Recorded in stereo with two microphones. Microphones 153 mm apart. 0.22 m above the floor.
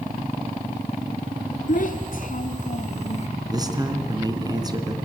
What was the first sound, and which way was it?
A child speaking, 60° left (ahead or behind).